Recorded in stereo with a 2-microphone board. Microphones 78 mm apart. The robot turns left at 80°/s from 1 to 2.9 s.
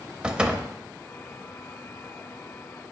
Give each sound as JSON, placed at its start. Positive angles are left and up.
{"t": 0.2, "sound": "a door slam", "side_deg": -15, "distance_m": 0.6}